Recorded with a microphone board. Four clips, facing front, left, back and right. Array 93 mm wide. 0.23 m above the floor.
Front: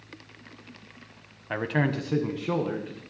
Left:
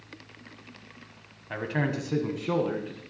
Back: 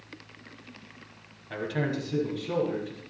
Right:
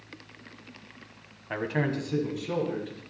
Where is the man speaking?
20° right, 1.2 m; by 3.0 s 50° left, 2 m.